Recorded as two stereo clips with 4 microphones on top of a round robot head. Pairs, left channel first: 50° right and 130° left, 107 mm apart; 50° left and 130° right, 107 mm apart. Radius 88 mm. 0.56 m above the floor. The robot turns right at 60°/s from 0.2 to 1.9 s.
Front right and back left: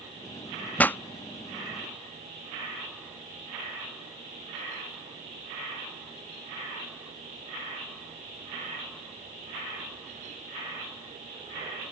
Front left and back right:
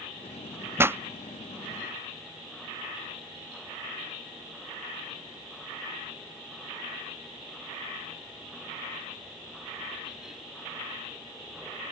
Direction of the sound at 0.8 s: 105° right.